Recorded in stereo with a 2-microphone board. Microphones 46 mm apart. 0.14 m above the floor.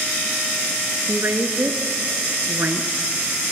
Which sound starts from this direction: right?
A woman speaking, at 1.1 s.